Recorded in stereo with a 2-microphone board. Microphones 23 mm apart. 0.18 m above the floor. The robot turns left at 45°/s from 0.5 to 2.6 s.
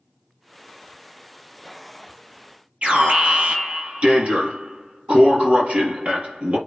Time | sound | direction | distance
2.8 | an alarm | 70° right (ahead or behind) | 5 m